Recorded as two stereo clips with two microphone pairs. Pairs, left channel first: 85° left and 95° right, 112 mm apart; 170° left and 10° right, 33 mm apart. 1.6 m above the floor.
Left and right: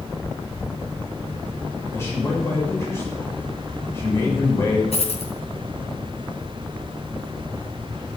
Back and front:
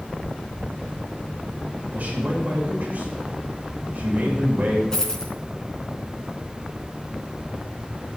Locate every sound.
1.9 s a man speaking: 20° left, 7 m
4.9 s a dropped coin: 100° left, 3.5 m